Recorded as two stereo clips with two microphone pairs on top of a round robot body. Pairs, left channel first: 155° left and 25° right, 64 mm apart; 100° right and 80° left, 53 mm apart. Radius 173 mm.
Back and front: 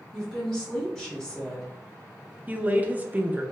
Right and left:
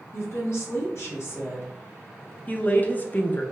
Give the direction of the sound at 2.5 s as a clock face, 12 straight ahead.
2 o'clock.